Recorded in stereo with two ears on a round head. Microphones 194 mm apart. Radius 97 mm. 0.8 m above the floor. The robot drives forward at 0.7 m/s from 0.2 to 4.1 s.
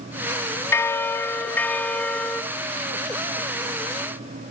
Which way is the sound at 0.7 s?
15° left (ahead or behind).